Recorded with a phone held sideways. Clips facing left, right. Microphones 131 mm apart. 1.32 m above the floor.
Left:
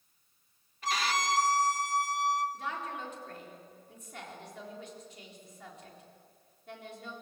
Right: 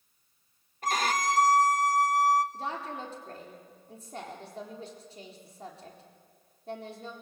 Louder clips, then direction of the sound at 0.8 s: Right 3 dB; 45° right (ahead or behind).